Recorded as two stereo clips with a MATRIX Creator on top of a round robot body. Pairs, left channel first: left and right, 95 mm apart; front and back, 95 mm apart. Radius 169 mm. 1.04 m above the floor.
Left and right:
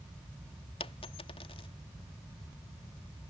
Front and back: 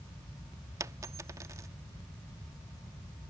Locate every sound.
0.8 s a dropped coin: 125° left